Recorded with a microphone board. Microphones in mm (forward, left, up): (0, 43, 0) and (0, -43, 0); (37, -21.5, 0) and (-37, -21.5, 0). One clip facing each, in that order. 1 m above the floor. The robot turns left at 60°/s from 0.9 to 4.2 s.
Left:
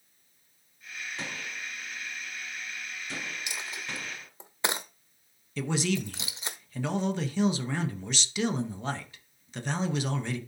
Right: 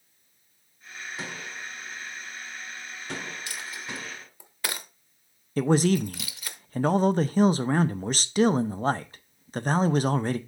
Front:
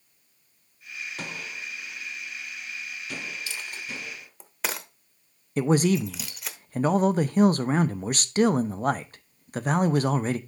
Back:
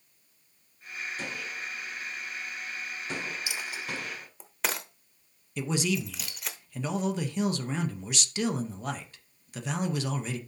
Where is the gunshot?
5° right, 4 m; by 4.3 s 175° left, 4 m.